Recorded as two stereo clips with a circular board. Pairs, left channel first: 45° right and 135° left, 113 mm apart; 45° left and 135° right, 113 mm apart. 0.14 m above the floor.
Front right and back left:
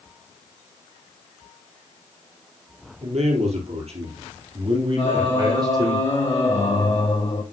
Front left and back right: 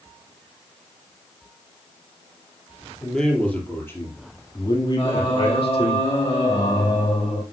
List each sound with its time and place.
3.0 s a man speaking: 130° left, 3.5 m; by 6.0 s 80° left, 4.5 m
5.0 s singing: straight ahead, 2.5 m